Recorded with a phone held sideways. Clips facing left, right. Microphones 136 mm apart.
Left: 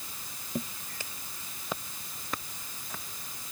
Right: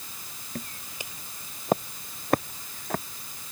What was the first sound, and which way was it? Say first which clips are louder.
Footsteps: left 3 dB; 20° left (ahead or behind).